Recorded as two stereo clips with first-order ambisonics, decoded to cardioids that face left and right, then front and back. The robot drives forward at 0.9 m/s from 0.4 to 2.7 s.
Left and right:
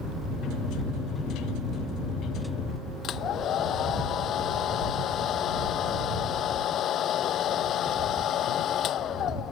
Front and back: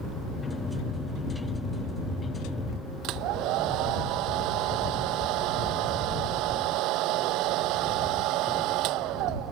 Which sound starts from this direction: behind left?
A hair dryer, at 3.0 s.